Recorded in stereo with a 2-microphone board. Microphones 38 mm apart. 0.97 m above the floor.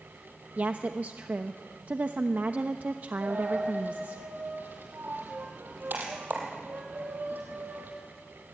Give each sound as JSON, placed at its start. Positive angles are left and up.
{"t": 0.6, "sound": "a woman speaking", "side_deg": -50, "distance_m": 0.9}
{"t": 3.2, "sound": "a dropped coin", "side_deg": -55, "distance_m": 5.0}